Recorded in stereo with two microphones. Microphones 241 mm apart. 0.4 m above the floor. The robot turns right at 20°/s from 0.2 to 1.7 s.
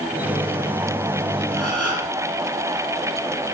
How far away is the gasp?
About 8 m.